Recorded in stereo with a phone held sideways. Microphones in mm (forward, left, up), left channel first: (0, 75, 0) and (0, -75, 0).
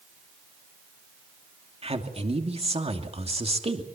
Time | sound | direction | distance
1.8 | a man speaking | 40° right (ahead or behind) | 2.5 m